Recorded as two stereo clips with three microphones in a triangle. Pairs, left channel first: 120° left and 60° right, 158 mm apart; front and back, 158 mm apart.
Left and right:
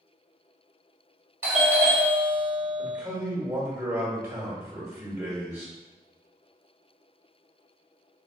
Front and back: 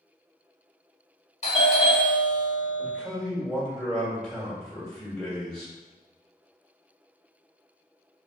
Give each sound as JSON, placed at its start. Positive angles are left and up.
{"t": 1.4, "sound": "a doorbell", "azimuth_deg": 5, "distance_m": 1.7}
{"t": 2.8, "sound": "a man speaking", "azimuth_deg": -85, "distance_m": 1.4}